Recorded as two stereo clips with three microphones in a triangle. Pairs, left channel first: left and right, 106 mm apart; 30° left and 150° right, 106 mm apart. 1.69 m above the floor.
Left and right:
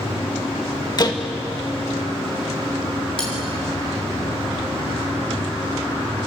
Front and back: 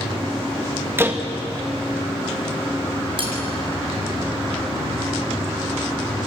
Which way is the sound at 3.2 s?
175° left.